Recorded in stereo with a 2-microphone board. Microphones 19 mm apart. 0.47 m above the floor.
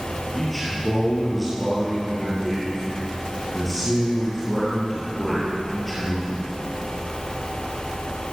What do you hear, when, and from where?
0.3 s a man speaking: 5° left (ahead or behind), 8.5 m